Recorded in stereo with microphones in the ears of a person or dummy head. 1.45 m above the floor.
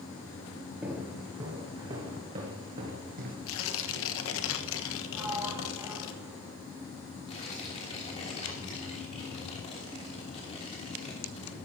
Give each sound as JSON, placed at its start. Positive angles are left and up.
{"t": 0.8, "sound": "footsteps", "side_deg": -10, "distance_m": 1.9}
{"t": 3.5, "sound": "tearing paper", "side_deg": 80, "distance_m": 1.3}
{"t": 5.1, "sound": "a sliding door", "side_deg": -10, "distance_m": 3.5}
{"t": 7.3, "sound": "tearing paper", "side_deg": 30, "distance_m": 3.0}